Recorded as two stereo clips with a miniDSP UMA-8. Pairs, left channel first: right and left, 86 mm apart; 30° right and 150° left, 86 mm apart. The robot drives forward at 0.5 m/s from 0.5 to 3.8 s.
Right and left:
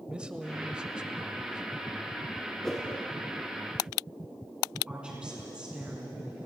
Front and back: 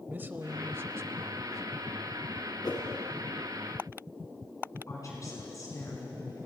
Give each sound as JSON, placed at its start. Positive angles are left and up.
{"t": 0.1, "sound": "a man speaking", "azimuth_deg": 150, "distance_m": 0.9}
{"t": 2.6, "sound": "a whoosh", "azimuth_deg": -5, "distance_m": 4.5}
{"t": 4.9, "sound": "a woman speaking", "azimuth_deg": 15, "distance_m": 3.5}